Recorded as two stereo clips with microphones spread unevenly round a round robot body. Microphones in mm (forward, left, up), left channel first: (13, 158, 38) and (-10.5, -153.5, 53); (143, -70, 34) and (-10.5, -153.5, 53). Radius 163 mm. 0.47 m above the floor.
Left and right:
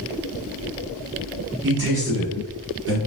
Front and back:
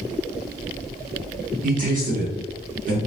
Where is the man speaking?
135° right, 1.5 m.